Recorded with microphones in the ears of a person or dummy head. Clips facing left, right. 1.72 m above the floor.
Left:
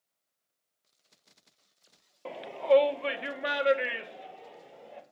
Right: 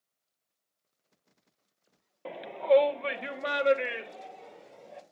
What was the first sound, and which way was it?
A shout, 5° right (ahead or behind).